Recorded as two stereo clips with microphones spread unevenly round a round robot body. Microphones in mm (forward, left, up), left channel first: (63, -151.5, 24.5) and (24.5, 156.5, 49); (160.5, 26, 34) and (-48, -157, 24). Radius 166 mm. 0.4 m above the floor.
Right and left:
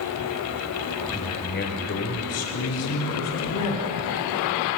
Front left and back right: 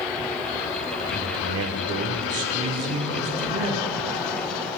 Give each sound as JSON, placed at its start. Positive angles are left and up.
{"t": 1.1, "sound": "a man speaking", "azimuth_deg": -145, "distance_m": 0.9}